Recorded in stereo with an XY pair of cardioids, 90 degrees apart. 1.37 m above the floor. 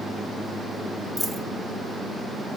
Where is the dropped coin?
5° right, 2 m.